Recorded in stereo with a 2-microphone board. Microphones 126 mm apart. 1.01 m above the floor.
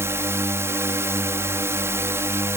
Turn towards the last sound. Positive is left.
turn(degrees=-20)  # may be behind; listen again after turning